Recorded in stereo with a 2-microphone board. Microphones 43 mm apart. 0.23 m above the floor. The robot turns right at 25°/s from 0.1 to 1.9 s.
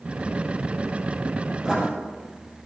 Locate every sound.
1.6 s writing: 20° right (ahead or behind), 6 m; by 1.9 s 15° right (ahead or behind), 6 m